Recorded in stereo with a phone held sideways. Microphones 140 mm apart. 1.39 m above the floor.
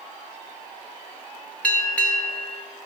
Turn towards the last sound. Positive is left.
turn(degrees=10)  # may be behind; listen again after turning